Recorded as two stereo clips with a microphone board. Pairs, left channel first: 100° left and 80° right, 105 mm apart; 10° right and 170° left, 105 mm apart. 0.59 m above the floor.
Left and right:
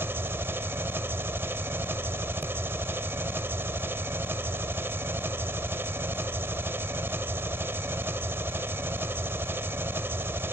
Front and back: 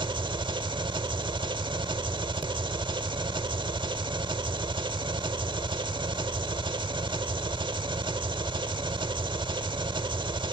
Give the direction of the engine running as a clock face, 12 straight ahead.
5 o'clock.